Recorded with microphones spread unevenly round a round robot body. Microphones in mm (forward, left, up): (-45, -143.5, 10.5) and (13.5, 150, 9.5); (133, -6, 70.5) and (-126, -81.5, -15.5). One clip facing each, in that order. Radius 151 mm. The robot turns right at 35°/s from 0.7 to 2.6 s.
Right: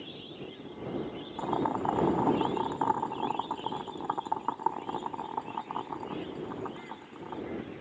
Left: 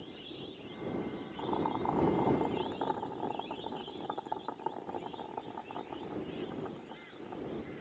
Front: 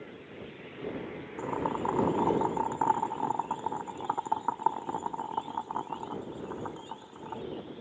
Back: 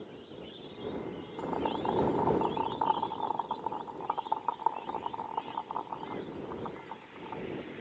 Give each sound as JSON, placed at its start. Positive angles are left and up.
{"t": 1.4, "sound": "boiling", "azimuth_deg": -70}